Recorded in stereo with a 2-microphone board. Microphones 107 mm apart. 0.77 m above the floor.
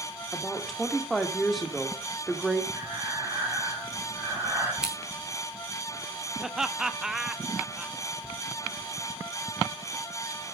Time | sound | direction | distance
0.3 | a woman speaking | centre (ahead or behind) | 1.6 m
2.7 | breathing | 15° right (ahead or behind) | 5.5 m
4.8 | scissors | 5° right (ahead or behind) | 2.5 m
6.4 | laughter | 5° right (ahead or behind) | 0.7 m